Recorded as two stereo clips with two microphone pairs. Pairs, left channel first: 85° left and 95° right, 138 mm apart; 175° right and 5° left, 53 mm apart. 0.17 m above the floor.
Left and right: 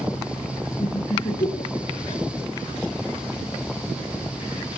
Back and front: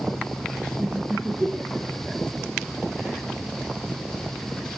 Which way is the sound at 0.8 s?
65° left.